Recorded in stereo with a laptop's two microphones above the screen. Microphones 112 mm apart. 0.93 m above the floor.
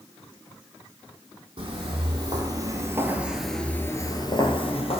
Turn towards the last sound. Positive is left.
turn(degrees=60)  # may be behind; listen again after turning